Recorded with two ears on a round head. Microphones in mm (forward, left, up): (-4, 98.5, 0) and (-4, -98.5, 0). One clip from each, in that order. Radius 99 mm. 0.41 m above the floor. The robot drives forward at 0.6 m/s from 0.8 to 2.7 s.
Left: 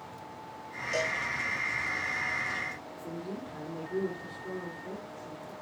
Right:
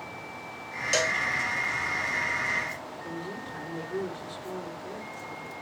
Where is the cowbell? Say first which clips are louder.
Right 5 dB; 75° right (ahead or behind), 1.6 m; by 1.2 s 70° right (ahead or behind), 1.6 m.